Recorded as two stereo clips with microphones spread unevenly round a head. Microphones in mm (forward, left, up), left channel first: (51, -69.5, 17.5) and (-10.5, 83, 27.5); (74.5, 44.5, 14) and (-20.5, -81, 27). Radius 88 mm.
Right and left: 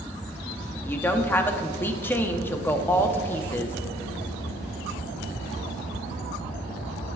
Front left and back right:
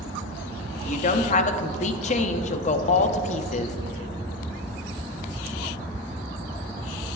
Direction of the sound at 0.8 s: 10° left.